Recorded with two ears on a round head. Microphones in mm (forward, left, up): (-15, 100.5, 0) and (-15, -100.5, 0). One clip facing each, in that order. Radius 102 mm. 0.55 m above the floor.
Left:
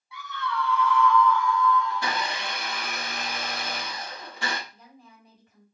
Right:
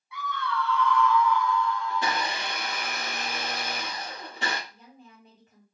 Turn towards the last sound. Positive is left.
turn(degrees=-25)  # may be behind; listen again after turning